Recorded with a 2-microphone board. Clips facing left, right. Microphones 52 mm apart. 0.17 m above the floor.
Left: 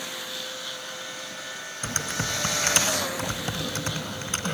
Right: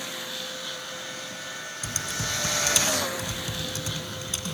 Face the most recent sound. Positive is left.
turn(degrees=40)  # may be behind; listen again after turning